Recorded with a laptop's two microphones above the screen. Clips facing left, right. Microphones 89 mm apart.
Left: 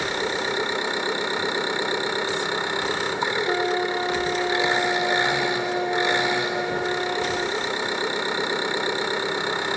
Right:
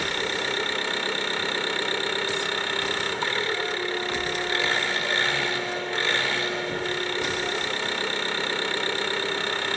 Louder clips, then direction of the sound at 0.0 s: Left 3 dB; 20° left (ahead or behind).